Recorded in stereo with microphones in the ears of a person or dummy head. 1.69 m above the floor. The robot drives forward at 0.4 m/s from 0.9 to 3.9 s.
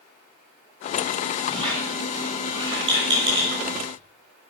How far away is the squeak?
About 4 m.